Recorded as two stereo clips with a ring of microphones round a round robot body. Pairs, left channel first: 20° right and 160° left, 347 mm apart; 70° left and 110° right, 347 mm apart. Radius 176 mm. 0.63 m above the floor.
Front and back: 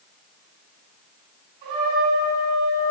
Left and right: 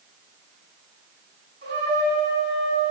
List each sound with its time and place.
1.6 s a trumpet: 175° right, 3 m